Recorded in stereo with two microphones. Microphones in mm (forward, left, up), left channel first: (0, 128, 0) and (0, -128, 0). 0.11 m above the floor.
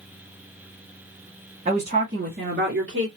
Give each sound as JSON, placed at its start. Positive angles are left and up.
{"t": 1.6, "sound": "a woman speaking", "side_deg": -25, "distance_m": 1.9}